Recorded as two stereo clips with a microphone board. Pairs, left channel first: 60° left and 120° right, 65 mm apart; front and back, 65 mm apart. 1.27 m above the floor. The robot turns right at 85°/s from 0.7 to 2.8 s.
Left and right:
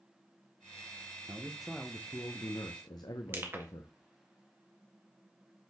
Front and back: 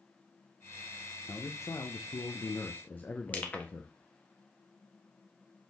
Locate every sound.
1.3 s a man speaking: 65° right, 0.8 m; by 3.9 s 65° left, 0.8 m
3.3 s crushing: 65° right, 1.6 m